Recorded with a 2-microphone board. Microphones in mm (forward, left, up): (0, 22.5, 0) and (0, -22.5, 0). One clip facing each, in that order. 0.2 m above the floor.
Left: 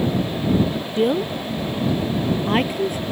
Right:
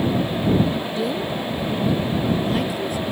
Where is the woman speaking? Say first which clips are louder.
Left 4 dB; 45° left (ahead or behind).